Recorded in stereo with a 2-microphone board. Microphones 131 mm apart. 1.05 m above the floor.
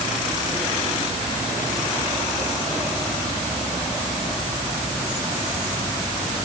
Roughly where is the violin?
I don't hear a violin.